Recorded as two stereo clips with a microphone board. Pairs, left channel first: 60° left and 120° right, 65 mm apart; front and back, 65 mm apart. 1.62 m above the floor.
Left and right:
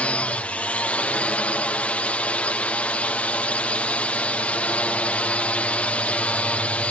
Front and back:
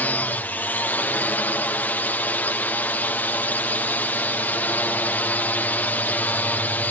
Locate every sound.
0.0 s a drone: 20° left